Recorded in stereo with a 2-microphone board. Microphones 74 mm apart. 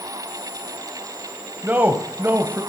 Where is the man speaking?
30° right (ahead or behind), 1.0 m.